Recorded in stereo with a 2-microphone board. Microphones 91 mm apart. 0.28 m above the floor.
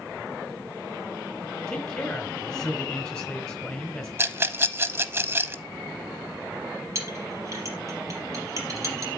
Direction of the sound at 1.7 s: 10° left (ahead or behind).